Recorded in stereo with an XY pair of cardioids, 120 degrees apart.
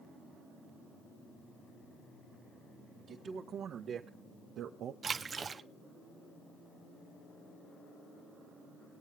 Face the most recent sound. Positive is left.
turn(degrees=-35)